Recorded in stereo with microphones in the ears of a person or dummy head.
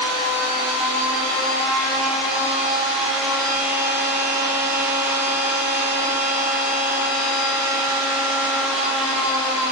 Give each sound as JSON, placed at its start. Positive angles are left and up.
{"t": 0.0, "sound": "a machine running", "side_deg": -5, "distance_m": 2.0}